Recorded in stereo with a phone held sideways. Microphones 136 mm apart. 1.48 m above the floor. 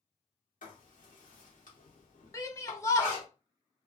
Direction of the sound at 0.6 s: 75° left (ahead or behind).